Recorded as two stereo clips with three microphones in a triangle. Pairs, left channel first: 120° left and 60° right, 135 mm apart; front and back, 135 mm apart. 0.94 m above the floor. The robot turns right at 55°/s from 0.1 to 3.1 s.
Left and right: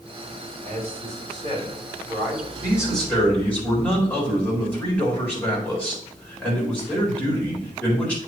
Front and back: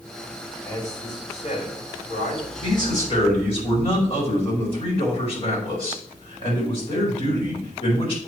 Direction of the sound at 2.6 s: 15° left.